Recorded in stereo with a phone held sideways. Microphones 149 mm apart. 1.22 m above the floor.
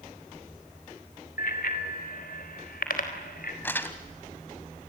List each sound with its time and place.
1.4 s a bicycle bell: 80° left, 2.5 m
3.6 s crumpling: 15° left (ahead or behind), 2.0 m